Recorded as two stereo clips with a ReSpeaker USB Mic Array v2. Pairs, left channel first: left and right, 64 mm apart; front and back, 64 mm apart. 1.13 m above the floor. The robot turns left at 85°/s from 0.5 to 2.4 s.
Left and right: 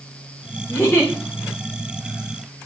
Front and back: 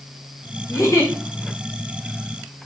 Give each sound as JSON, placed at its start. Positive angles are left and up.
{"t": 0.7, "sound": "a giggle", "azimuth_deg": 50, "distance_m": 4.0}